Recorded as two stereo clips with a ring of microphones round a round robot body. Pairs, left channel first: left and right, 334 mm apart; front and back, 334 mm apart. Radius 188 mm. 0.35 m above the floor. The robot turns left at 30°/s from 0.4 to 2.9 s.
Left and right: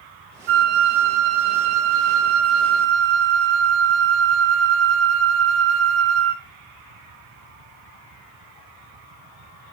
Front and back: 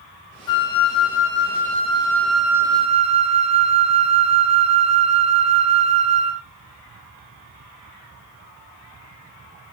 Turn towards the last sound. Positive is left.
turn(degrees=-105)